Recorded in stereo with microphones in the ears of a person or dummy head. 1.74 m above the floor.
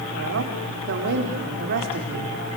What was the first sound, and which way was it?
A woman speaking, 65° right (ahead or behind).